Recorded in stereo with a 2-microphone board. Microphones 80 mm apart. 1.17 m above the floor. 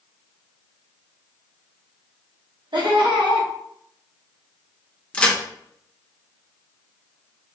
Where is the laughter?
80° right, 1.2 m.